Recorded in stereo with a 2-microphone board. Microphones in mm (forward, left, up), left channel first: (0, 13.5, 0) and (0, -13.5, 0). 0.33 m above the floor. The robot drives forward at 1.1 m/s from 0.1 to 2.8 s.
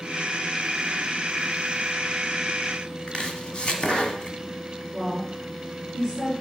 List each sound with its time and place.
3.1 s chopping: 30° left (ahead or behind), 1.7 m
4.9 s a woman speaking: 10° left (ahead or behind), 5 m